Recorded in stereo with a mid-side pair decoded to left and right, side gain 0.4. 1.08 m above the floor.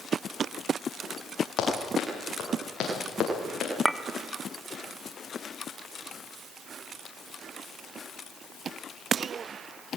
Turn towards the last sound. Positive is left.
turn(degrees=-5)